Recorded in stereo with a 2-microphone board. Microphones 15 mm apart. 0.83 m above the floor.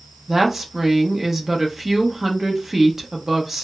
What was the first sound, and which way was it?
A woman speaking, 25° right (ahead or behind).